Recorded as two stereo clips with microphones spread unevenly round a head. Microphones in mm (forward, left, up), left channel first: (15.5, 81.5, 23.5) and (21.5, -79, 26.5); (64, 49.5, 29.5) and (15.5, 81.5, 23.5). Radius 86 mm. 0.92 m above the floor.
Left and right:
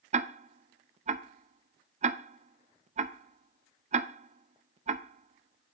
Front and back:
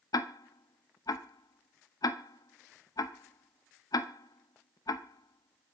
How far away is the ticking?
About 0.7 m.